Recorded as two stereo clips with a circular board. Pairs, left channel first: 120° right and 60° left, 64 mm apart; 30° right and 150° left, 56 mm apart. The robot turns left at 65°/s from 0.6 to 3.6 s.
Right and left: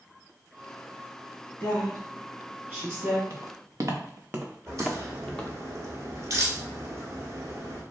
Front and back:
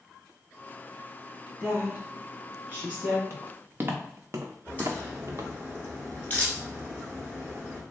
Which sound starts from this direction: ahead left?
A crack, at 4.7 s.